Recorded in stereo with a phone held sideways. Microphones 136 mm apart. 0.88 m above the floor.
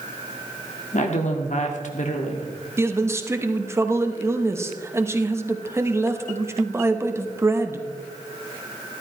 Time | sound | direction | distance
0.9 | a woman speaking | 60° left (ahead or behind) | 1.8 m
2.8 | a man speaking | 20° right (ahead or behind) | 1.0 m